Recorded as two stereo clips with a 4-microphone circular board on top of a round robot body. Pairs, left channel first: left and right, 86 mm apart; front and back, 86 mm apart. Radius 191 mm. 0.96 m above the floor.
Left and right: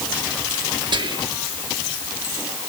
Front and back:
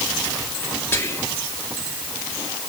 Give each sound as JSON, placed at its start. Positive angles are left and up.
{"t": 0.9, "sound": "whispering", "azimuth_deg": -65, "distance_m": 2.0}